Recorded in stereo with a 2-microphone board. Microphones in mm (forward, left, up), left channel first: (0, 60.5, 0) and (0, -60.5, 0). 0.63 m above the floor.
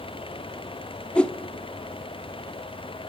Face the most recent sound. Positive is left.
turn(degrees=10)  # may be behind; listen again after turning